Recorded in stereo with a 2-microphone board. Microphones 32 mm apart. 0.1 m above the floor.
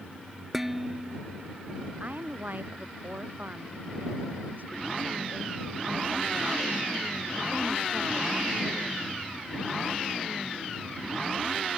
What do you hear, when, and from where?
0.5 s dishes clattering: 10° right (ahead or behind)
2.0 s a woman speaking: 60° right (ahead or behind)